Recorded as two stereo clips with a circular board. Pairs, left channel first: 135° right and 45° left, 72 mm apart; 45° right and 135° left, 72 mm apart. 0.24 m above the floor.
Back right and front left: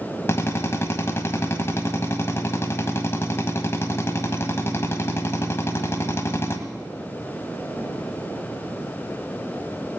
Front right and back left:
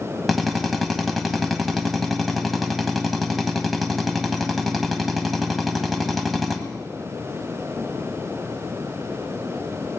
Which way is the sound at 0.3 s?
135° right.